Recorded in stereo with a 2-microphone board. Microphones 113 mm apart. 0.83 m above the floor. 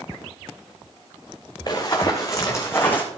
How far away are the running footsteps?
About 3 m.